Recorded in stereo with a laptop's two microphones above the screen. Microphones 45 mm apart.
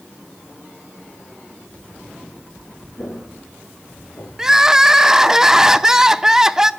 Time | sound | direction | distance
3.0 | footsteps | 55° left (ahead or behind) | 3 m
4.4 | crying | 10° right (ahead or behind) | 0.6 m